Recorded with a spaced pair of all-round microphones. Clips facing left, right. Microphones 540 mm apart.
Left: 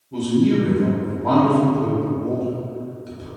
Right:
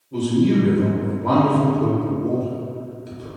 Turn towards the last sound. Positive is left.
turn(degrees=5)  # may be behind; listen again after turning